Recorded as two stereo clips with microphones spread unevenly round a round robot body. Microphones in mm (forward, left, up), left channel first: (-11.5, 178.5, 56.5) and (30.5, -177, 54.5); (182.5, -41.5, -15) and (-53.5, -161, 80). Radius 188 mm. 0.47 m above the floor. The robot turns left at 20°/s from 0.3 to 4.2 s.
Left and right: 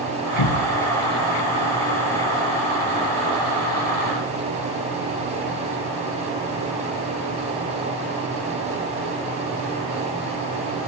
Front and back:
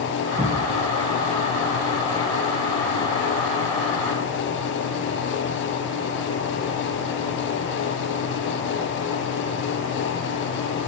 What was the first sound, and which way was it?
A cupboard door, 130° left.